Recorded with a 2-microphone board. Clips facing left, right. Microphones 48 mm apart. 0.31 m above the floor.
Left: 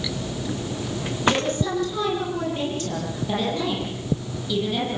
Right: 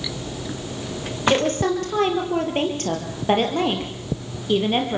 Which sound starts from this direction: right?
A woman speaking, at 1.3 s.